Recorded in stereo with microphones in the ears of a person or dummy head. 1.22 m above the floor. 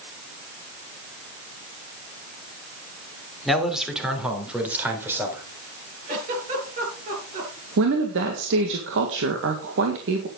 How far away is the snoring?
No snoring in this recording.